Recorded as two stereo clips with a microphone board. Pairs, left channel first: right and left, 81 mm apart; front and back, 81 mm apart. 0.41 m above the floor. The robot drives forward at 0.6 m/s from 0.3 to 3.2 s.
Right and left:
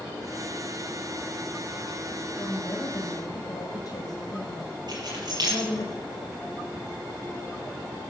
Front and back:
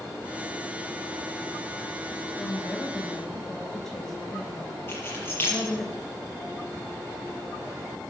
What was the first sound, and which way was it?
A woman speaking, 70° right.